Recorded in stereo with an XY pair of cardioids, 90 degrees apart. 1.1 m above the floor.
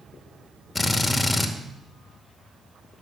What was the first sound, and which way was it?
A drill, 25° left.